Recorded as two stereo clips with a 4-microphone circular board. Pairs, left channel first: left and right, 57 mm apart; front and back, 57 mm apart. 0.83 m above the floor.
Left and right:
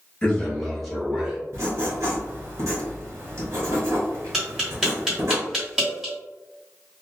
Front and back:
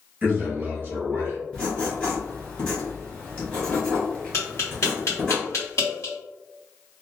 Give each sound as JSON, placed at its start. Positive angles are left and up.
{"t": 0.2, "sound": "a man speaking", "azimuth_deg": 145, "distance_m": 1.2}
{"t": 1.5, "sound": "writing", "azimuth_deg": -70, "distance_m": 1.5}
{"t": 4.3, "sound": "tapping", "azimuth_deg": -5, "distance_m": 1.5}